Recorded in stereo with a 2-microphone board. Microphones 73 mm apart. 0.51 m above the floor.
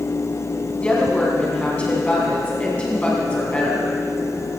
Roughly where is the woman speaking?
Centre.